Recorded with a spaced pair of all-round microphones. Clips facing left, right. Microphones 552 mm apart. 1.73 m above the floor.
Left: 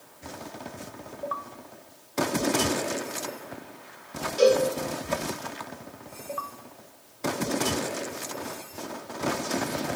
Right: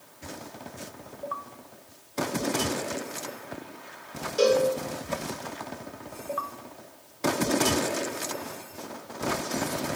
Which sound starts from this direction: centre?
A cowbell, at 4.4 s.